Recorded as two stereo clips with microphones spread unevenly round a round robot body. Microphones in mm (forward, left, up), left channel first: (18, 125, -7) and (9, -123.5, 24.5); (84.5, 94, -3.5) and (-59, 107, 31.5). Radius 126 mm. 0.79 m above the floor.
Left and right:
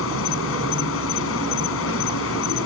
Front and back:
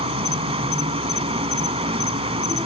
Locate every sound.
0.0 s an insect: 130° left